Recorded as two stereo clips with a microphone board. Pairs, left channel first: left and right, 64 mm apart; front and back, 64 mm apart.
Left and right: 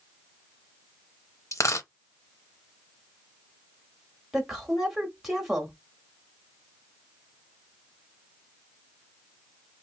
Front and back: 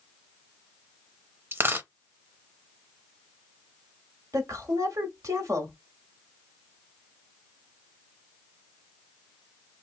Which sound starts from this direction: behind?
A woman speaking, at 4.3 s.